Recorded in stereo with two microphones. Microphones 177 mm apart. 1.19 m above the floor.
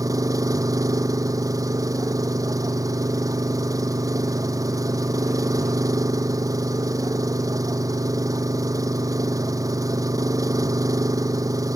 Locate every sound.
0.0 s an engine running: 20° right (ahead or behind)